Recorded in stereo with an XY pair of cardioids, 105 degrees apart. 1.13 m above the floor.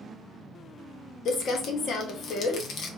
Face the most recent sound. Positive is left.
turn(degrees=65)